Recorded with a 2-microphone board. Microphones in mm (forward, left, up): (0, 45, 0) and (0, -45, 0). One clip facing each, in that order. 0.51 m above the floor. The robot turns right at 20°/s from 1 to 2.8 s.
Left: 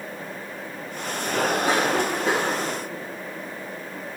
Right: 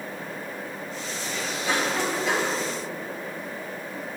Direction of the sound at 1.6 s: 45° left (ahead or behind).